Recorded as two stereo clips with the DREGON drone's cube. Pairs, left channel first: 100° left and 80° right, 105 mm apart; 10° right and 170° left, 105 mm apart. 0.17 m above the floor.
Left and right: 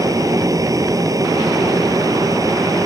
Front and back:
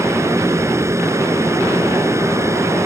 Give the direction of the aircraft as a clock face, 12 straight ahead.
4 o'clock.